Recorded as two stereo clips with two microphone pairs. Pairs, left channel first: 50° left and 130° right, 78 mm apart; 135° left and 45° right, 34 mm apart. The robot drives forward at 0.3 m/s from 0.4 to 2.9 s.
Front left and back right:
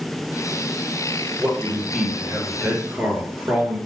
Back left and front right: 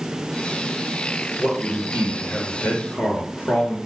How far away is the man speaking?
About 3 m.